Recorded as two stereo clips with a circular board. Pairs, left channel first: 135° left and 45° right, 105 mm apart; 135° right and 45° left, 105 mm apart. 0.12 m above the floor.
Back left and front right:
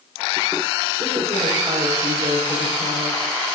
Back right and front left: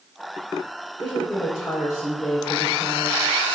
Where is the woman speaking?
70° right, 5 m.